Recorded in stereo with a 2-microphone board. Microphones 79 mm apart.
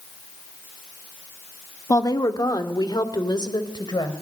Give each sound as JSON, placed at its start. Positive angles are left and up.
{"t": 1.9, "sound": "a woman speaking", "side_deg": 50, "distance_m": 1.9}